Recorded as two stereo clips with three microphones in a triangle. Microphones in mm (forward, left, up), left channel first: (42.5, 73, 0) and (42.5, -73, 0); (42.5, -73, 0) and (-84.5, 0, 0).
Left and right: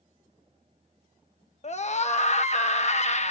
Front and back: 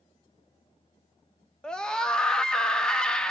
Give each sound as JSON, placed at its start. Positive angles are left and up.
{"t": 1.6, "sound": "a scream", "azimuth_deg": 55, "distance_m": 0.7}